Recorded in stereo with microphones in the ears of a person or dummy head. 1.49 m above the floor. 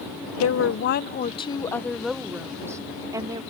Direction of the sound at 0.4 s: 75° left (ahead or behind).